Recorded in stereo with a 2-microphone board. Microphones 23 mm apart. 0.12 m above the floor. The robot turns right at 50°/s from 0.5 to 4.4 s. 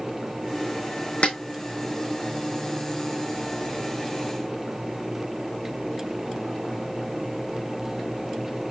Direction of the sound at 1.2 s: 65° left (ahead or behind).